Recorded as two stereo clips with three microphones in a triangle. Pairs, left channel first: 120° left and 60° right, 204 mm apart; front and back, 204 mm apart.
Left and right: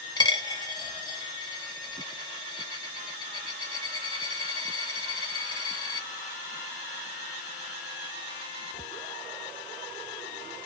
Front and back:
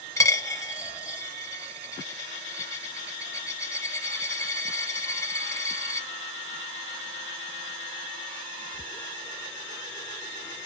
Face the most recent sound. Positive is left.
turn(degrees=70)